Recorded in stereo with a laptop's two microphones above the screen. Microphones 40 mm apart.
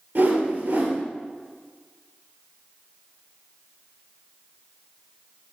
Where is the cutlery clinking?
No cutlery clinking in this recording.